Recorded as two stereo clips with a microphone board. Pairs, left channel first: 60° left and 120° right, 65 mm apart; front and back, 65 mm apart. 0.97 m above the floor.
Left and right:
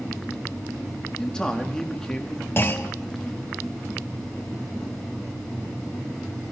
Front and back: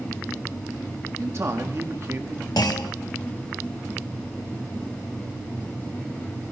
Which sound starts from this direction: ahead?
A clunk, at 2.6 s.